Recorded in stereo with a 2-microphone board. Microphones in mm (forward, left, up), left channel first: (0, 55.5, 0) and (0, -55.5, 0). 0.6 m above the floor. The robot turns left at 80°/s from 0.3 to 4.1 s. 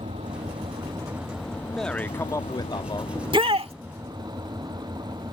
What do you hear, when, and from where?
0.0 s an engine running: 90° right; by 5.3 s 35° right
1.6 s a man speaking: 175° right; by 3.0 s 75° left
3.1 s a shout: 40° right; by 3.7 s 90° right